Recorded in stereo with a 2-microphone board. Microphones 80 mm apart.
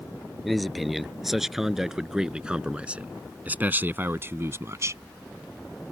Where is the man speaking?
Centre (ahead or behind); by 5.0 s 40° right (ahead or behind).